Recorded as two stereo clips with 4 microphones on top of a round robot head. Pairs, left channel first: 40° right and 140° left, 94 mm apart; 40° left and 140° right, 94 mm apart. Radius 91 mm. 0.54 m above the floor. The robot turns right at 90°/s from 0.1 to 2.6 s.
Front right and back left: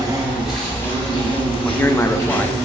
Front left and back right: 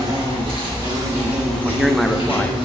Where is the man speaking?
80° right, 0.6 m; by 2.6 s 5° left, 0.6 m.